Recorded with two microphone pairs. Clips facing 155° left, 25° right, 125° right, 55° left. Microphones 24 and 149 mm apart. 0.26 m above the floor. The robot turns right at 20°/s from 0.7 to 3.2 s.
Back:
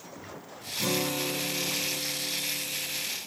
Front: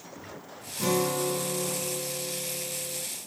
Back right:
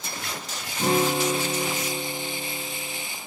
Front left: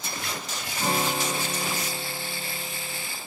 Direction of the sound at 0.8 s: 100° right.